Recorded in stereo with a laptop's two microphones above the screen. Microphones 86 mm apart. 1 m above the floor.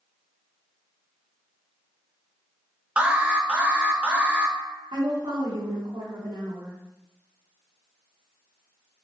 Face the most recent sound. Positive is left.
turn(degrees=-70)  # may be behind; listen again after turning